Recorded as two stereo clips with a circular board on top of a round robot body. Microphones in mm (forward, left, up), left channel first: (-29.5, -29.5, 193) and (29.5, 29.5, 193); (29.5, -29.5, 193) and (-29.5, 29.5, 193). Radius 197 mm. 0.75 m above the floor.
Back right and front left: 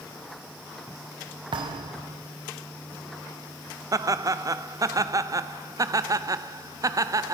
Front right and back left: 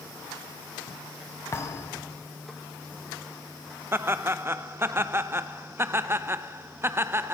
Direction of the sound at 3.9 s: 80° left.